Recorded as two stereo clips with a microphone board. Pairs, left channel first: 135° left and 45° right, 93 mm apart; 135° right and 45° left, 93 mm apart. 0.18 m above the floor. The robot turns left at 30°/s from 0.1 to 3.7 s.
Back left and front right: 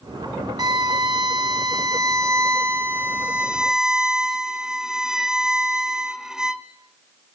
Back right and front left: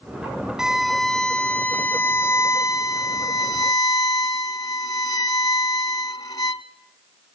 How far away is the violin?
About 0.7 m.